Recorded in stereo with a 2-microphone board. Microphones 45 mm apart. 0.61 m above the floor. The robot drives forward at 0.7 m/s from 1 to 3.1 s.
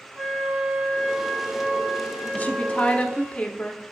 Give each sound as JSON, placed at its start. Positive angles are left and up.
{"t": 0.1, "sound": "a flute", "side_deg": -35, "distance_m": 3.5}
{"t": 2.3, "sound": "a woman speaking", "side_deg": 35, "distance_m": 0.9}